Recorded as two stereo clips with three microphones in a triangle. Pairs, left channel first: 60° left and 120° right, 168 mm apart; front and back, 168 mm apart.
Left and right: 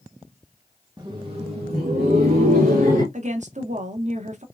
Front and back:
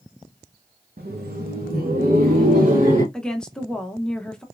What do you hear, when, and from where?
1.0 s laughter: 175° left, 0.7 m; by 3.0 s 145° right, 2 m
3.1 s a woman speaking: 85° right, 0.7 m